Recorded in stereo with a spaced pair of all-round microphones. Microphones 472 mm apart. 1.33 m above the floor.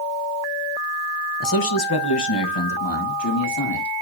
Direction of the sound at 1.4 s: 40° left (ahead or behind).